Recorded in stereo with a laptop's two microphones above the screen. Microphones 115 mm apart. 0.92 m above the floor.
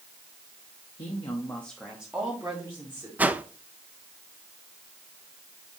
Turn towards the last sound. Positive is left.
turn(degrees=-15)  # may be behind; listen again after turning